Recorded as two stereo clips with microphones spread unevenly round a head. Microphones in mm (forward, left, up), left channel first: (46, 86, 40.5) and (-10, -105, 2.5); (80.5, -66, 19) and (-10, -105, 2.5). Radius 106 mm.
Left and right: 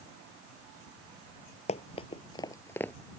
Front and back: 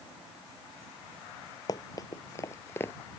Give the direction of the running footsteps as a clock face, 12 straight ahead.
11 o'clock.